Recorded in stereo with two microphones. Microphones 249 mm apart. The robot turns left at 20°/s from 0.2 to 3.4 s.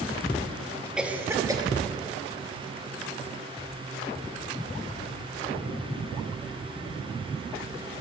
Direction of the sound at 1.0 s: 5° right (ahead or behind).